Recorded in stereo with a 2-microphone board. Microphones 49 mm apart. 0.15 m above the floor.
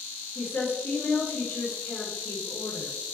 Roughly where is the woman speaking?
Left.